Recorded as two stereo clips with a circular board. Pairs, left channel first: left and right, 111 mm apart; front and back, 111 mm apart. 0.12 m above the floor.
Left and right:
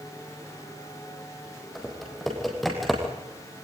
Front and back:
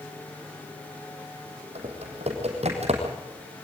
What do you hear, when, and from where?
1.8 s typing on a keyboard: straight behind, 4.5 m